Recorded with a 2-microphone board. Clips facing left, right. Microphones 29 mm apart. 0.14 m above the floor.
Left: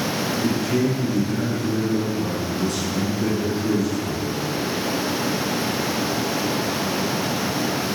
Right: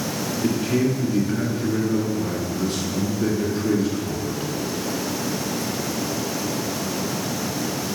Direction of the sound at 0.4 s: 20° right (ahead or behind).